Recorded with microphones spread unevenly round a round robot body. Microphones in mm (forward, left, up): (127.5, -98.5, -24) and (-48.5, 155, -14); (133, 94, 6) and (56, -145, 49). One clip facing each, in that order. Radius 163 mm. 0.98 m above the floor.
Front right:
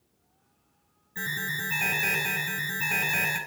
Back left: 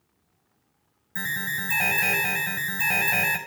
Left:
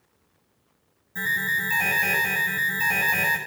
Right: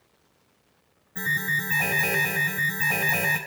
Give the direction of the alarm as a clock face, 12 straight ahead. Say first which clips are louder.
Back left 1 dB, right 2 dB; 7 o'clock.